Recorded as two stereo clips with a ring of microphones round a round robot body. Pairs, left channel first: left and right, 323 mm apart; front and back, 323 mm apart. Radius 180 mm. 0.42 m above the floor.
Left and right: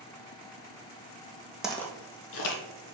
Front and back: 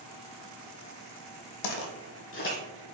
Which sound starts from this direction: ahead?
Footsteps, at 1.6 s.